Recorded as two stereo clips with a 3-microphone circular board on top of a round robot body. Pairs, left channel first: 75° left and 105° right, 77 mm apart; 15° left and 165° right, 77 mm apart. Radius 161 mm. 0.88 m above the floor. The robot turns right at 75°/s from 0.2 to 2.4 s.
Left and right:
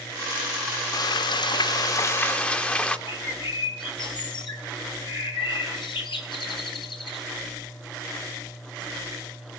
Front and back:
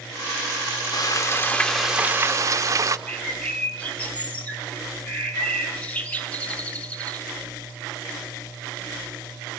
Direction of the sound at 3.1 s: 90° left.